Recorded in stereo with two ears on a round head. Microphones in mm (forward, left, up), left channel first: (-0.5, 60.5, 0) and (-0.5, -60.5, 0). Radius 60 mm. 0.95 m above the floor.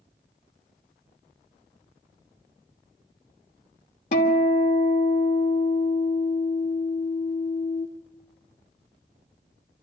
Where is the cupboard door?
I don't hear a cupboard door.